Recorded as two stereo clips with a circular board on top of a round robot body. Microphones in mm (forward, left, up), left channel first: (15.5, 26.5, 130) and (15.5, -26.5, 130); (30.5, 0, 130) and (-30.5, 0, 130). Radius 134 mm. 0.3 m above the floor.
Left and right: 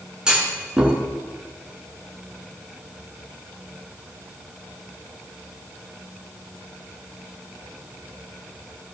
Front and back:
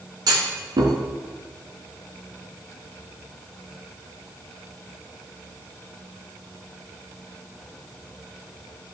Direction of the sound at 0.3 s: 165° right.